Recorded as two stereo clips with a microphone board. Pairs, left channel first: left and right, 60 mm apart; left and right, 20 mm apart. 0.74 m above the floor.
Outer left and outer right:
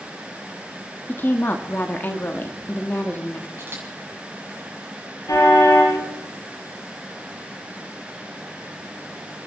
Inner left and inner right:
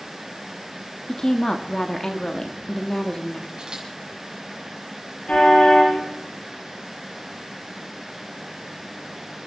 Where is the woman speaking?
35° left (ahead or behind), 1.2 m.